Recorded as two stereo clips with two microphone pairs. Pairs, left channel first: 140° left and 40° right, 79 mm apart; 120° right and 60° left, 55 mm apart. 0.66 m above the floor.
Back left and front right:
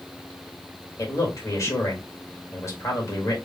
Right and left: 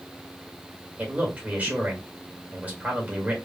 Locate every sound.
1.0 s a man speaking: 110° left, 1.6 m